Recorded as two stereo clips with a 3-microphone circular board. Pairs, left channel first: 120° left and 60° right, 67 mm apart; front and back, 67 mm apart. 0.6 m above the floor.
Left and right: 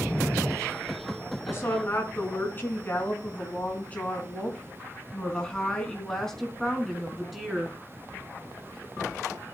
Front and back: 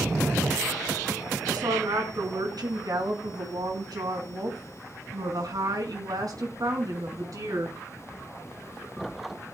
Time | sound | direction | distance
1.5 | a woman speaking | 175° left | 5.5 m